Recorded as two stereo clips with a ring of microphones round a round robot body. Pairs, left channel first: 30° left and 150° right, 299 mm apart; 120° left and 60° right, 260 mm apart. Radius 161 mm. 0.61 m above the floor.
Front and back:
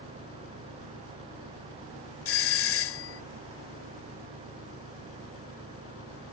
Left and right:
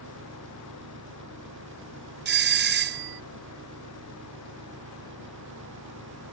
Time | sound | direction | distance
0.0 | an engine running | 15° right | ?
2.2 | a doorbell | 15° right | ?